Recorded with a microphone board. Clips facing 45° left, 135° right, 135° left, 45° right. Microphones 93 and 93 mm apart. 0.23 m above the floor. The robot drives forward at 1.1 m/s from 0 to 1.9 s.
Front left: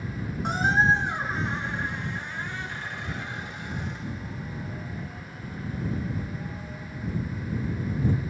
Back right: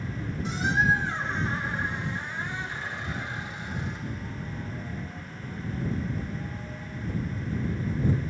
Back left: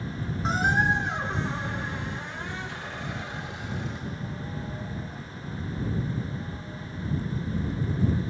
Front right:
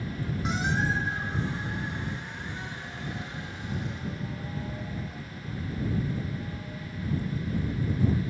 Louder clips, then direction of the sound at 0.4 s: Front left 3 dB, back left 5 dB; 80° left.